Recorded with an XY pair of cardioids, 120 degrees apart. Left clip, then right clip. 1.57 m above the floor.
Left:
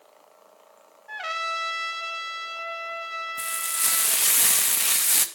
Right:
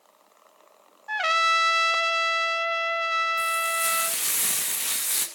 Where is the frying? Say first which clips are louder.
Right 5 dB; 30° left, 2 m.